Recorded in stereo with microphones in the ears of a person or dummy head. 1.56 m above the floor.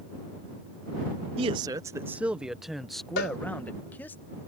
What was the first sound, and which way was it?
A man speaking, 30° right (ahead or behind).